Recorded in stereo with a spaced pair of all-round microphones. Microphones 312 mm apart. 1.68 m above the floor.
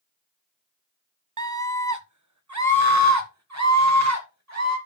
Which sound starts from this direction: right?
A scream, at 1.4 s.